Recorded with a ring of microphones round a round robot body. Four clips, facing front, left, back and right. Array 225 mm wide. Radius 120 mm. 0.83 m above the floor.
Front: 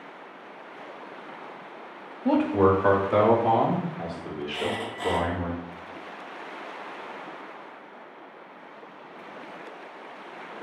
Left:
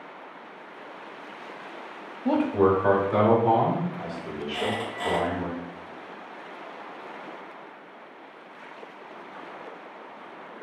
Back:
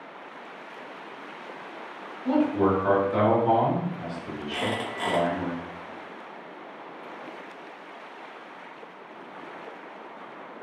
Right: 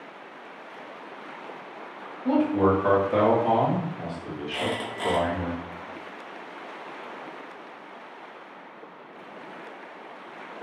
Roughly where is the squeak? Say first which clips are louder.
Even, back 2 dB; behind right.